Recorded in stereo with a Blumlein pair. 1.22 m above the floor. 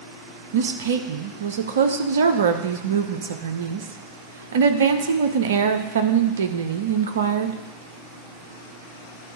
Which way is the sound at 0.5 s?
65° right.